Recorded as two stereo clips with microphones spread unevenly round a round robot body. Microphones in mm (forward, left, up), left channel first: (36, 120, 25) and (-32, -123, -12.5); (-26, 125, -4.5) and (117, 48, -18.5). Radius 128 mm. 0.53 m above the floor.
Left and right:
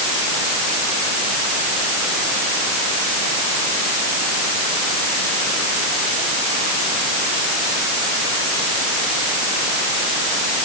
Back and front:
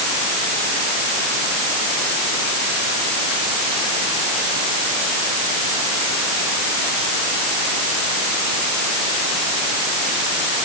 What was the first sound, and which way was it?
Only background noise.